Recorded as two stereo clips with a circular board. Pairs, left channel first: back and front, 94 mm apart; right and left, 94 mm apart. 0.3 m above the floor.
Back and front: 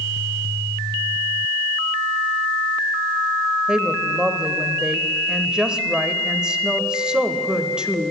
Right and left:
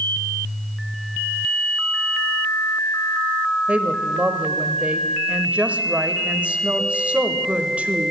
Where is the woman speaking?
60° left, 0.9 m.